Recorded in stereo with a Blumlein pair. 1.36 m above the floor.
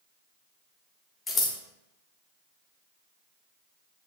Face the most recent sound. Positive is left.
turn(degrees=15)